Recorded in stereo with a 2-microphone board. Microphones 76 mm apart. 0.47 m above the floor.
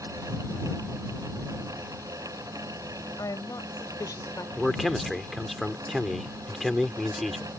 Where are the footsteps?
I don't hear footsteps.